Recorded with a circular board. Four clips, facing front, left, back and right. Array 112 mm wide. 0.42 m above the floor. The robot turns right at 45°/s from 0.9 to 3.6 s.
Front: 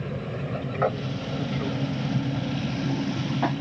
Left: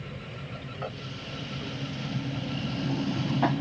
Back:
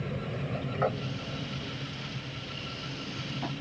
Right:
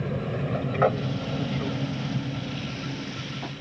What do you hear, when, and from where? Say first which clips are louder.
0.0 s an aircraft: right 12 dB, front 3 dB; 75° right; by 3.6 s 55° left